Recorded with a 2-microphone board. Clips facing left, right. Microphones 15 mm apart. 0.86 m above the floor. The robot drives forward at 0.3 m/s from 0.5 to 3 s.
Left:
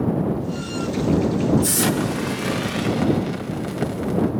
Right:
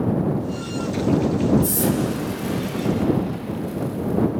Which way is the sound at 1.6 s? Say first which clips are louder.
Left 1 dB; 50° left (ahead or behind).